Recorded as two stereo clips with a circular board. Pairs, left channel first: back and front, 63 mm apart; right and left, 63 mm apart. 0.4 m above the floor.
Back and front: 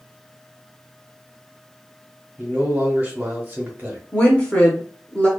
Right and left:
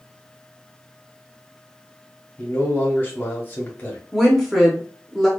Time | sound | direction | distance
2.4 | a man speaking | 50° right | 1.1 m
4.1 | a woman speaking | 175° right | 0.8 m